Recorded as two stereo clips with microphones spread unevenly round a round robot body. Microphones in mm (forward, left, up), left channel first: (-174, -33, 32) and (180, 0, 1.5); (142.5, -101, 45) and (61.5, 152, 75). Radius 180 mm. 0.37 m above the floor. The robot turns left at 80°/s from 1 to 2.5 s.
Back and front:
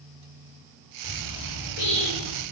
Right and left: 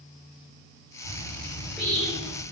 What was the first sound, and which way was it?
A bird, 105° right.